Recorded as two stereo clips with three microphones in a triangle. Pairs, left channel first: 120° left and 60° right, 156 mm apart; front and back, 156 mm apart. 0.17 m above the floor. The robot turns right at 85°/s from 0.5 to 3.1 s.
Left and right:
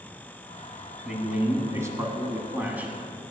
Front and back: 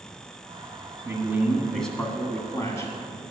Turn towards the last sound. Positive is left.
turn(degrees=25)